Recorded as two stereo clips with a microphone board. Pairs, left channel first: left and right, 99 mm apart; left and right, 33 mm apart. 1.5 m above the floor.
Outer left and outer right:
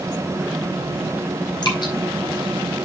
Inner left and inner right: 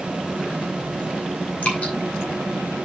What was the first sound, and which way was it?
Dripping, 50° left (ahead or behind).